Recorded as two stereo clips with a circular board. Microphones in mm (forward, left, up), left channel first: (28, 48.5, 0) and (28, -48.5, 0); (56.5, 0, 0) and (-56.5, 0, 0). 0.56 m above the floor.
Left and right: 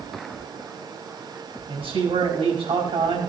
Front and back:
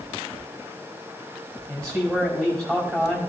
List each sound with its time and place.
1.7 s a man speaking: 115° right, 4.5 m